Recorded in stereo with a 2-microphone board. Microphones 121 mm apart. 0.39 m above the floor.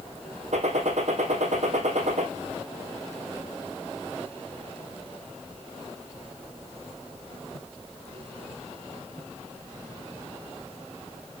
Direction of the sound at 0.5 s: 70° right (ahead or behind).